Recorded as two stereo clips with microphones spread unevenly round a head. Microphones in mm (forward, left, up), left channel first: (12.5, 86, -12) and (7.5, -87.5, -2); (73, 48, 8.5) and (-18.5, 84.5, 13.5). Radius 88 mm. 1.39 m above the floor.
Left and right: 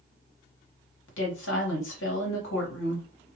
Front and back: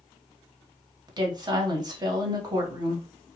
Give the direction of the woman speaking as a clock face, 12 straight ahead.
8 o'clock.